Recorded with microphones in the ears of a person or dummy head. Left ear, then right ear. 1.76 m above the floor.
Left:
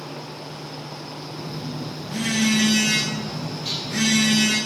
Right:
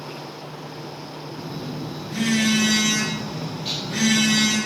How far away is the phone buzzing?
About 3 m.